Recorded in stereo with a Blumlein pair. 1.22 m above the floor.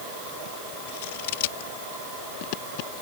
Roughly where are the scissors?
Ahead left.